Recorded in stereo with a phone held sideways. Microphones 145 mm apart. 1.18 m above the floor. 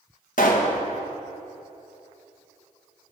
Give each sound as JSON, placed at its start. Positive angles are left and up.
{"t": 0.4, "sound": "a pop", "side_deg": 65, "distance_m": 1.4}